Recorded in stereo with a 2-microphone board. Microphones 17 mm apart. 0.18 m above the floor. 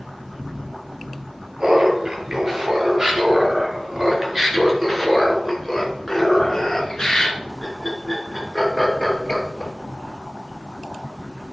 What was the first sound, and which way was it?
Laughter, 40° right (ahead or behind).